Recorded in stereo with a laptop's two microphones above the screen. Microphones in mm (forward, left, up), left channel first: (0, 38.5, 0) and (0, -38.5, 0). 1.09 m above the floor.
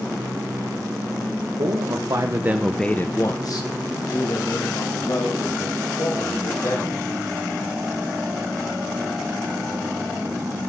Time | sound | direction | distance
1.6 | a man speaking | 65° right (ahead or behind) | 1.3 m